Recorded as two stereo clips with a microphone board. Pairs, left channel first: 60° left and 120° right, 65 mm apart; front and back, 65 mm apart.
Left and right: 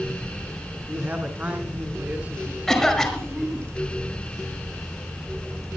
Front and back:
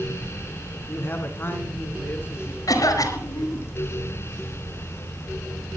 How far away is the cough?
About 5 m.